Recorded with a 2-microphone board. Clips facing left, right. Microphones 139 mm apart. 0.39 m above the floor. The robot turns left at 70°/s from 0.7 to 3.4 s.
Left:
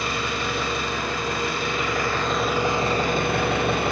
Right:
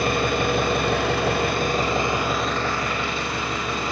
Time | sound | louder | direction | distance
0.0 | an engine running | right 6 dB | 60° right | 0.8 m